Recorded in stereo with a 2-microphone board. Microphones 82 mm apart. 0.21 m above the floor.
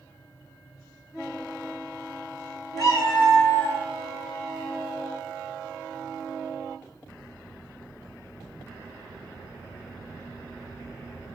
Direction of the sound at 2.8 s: 45° left (ahead or behind).